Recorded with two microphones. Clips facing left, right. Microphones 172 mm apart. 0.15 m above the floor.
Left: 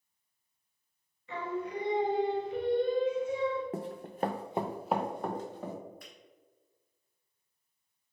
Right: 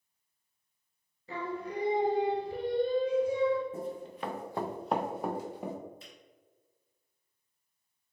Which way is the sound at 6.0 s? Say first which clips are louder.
Even; 25° right (ahead or behind).